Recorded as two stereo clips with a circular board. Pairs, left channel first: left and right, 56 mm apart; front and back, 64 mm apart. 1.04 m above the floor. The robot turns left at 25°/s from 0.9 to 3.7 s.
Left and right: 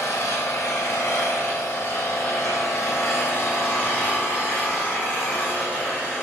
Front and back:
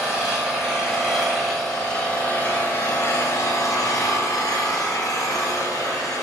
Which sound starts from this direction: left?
An engine running, at 0.0 s.